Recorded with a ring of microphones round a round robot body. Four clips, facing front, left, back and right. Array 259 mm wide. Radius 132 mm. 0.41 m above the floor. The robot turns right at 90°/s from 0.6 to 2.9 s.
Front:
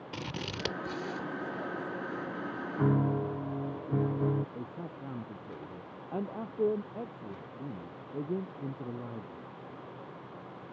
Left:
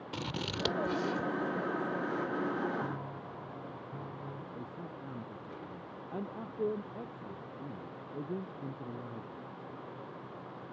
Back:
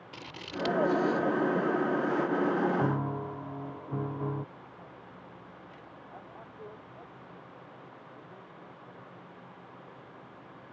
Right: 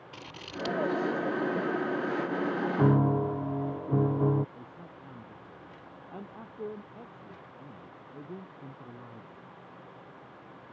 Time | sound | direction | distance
0.1 | scissors | 55° left | ?
2.8 | a piano | 80° right | ?
4.5 | a man speaking | 10° left | ?